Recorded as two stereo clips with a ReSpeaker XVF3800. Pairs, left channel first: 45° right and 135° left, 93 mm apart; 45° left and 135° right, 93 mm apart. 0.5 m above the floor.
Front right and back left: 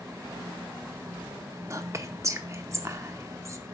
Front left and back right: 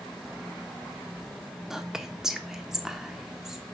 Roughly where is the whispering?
Behind left.